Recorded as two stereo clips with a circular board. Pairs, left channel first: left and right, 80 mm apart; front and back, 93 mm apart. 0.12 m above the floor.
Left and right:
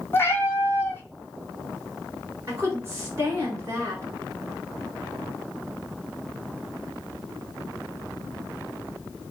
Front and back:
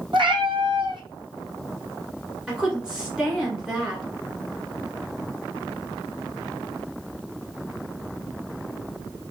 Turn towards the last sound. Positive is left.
turn(degrees=-105)